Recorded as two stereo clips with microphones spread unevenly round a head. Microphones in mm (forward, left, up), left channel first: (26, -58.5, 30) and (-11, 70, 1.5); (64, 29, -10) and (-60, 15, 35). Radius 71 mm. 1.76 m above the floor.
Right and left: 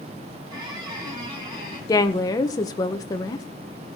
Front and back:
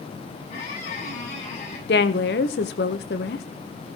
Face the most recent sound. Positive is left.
turn(degrees=-20)